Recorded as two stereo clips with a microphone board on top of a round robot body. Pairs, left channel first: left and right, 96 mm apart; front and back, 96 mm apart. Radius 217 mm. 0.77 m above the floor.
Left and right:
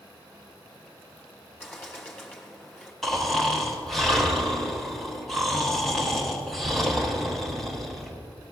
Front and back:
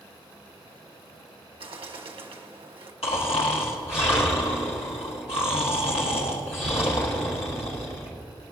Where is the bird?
155° left, 1.6 m.